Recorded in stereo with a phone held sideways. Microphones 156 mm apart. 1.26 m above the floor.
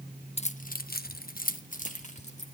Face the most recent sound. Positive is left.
turn(degrees=45)  # may be behind; listen again after turning